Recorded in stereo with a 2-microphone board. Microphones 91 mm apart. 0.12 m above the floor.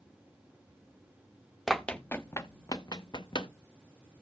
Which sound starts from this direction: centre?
Running footsteps, at 1.7 s.